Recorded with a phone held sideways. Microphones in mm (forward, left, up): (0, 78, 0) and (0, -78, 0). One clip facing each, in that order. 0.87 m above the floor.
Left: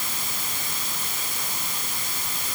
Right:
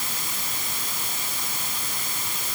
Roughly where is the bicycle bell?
I don't hear a bicycle bell.